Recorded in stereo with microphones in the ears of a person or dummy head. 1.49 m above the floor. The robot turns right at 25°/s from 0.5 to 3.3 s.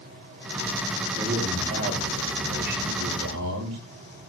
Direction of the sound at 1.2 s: 165° right.